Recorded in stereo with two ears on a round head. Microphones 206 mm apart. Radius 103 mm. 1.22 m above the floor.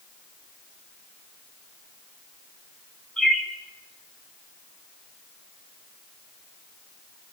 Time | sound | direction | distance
3.2 | a bird | 5° left (ahead or behind) | 4.5 m